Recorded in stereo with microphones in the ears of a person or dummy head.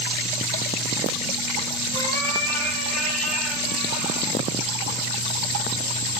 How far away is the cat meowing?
About 6.5 m.